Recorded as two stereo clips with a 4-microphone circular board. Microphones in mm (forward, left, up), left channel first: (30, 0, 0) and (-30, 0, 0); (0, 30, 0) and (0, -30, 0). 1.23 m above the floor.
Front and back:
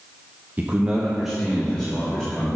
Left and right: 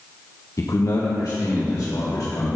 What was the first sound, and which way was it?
A man speaking, 120° left.